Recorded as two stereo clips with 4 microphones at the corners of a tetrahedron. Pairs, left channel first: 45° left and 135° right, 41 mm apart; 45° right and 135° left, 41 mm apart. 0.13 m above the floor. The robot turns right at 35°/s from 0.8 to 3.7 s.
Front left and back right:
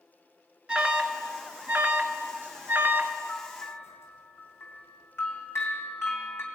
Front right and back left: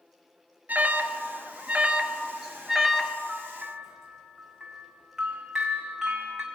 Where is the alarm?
160° left, 1.7 m; by 3.1 s 120° right, 1.7 m.